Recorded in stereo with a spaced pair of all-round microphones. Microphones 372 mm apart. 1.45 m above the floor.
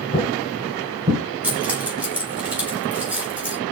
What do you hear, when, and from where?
0.1 s footsteps: 20° left (ahead or behind), 1.5 m; by 1.2 s 10° right (ahead or behind), 1.4 m
1.4 s keys jangling: 5° right (ahead or behind), 2.5 m